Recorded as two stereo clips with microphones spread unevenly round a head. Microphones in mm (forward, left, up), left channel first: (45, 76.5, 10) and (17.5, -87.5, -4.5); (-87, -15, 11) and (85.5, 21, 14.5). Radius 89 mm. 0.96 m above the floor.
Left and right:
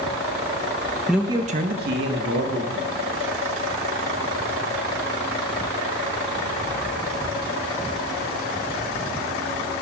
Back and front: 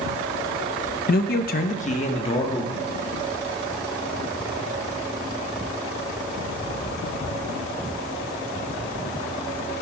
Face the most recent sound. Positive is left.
turn(degrees=-105)